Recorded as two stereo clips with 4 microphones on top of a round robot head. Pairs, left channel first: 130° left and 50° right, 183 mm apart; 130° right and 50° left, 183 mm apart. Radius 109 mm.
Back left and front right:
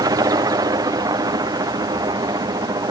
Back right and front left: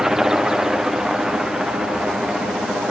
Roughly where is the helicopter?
Ahead right.